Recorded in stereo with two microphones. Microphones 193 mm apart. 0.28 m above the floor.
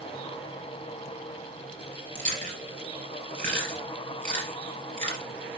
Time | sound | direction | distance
2.1 | chewing | 45° right (ahead or behind) | 3 m